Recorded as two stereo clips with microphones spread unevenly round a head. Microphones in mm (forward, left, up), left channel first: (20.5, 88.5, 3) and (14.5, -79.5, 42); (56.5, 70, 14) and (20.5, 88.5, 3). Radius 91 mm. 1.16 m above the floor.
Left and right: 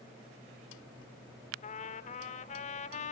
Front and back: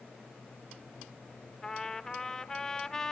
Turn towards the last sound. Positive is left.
turn(degrees=35)